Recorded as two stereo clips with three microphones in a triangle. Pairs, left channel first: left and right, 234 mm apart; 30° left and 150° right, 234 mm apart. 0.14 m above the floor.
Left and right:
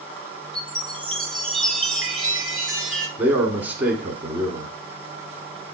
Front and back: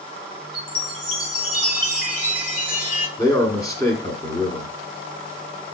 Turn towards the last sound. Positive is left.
turn(degrees=-20)